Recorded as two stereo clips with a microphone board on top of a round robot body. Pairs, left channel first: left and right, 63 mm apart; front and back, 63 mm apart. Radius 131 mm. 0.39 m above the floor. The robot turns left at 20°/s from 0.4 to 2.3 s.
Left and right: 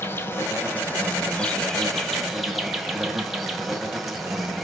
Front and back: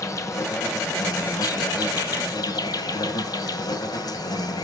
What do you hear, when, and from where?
0.0 s an insect: 35° left, 2.5 m; by 4.7 s straight ahead, 2.5 m